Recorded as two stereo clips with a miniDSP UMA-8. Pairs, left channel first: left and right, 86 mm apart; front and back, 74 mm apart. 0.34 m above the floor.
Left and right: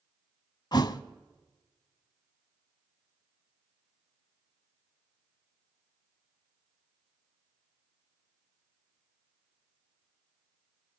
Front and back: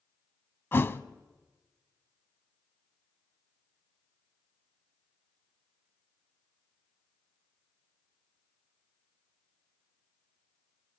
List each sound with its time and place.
0.7 s a thud: 55° left, 0.6 m